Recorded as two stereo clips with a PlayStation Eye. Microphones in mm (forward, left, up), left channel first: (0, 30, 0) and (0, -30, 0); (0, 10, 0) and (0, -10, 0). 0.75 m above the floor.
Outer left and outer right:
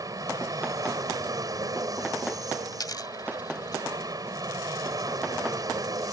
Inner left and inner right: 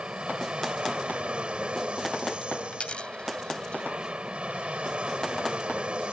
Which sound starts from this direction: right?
An aircraft, at 0.0 s.